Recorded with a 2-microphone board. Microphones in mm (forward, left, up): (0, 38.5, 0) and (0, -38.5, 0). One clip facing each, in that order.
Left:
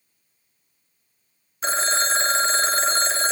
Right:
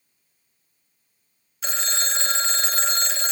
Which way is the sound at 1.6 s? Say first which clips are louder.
Left 7 dB; 35° left (ahead or behind).